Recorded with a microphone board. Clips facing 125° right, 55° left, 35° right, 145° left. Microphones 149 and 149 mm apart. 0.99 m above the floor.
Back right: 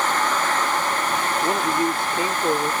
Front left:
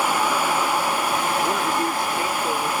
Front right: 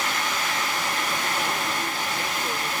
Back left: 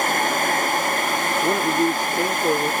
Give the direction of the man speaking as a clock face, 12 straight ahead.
7 o'clock.